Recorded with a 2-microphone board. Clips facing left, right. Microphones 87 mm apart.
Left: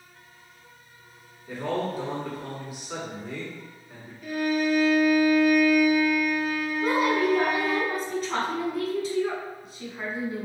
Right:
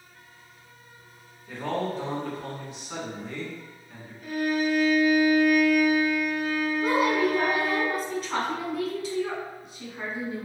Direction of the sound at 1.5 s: 5° left (ahead or behind).